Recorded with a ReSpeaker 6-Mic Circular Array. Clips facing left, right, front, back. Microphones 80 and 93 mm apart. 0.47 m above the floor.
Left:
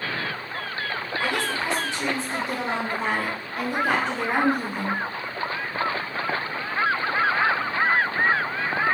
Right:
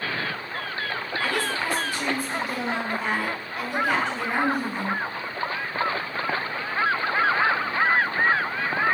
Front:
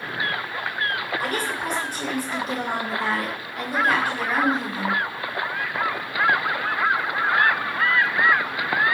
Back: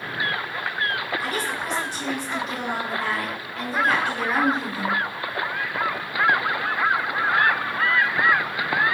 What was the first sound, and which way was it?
A woman speaking, 20° left.